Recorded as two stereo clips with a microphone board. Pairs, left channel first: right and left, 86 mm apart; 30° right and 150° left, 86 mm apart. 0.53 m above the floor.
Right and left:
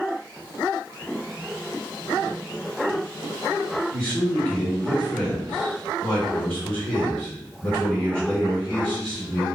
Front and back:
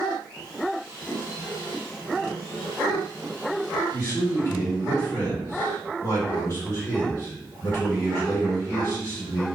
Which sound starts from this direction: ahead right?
A man speaking, at 3.9 s.